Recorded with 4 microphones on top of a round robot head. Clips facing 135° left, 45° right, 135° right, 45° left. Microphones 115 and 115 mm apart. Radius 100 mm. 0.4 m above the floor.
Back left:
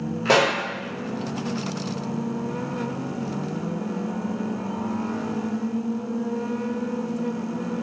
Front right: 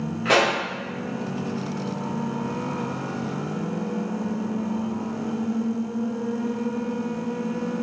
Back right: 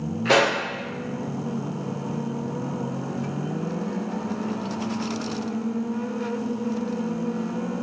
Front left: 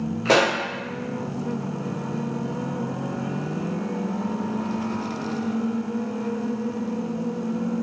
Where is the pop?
85° left, 0.9 m.